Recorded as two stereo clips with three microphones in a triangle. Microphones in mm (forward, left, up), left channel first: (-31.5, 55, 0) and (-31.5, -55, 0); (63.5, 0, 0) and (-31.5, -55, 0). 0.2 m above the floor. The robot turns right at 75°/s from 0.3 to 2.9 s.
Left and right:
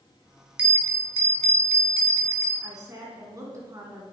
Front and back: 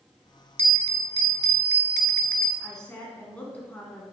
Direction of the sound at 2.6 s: 65° right.